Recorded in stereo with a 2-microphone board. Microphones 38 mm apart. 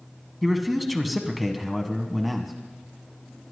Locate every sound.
0.4 s a man speaking: 5° right (ahead or behind), 1.1 m